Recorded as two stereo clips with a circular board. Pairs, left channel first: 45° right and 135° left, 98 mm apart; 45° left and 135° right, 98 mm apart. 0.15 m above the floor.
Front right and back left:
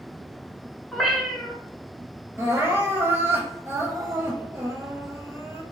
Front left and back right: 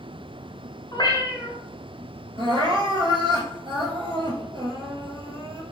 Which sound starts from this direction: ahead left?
A cat meowing, at 0.9 s.